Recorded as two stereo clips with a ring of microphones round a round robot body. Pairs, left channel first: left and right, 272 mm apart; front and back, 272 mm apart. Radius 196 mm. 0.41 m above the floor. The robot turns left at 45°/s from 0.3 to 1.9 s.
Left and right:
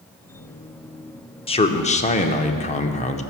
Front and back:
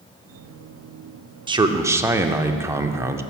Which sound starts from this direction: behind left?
A man speaking, at 1.5 s.